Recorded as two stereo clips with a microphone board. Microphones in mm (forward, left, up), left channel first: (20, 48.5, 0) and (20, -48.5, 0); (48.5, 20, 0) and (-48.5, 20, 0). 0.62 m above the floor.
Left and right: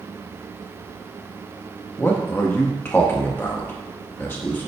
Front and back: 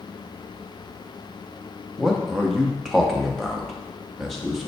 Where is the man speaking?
90° left, 0.6 m.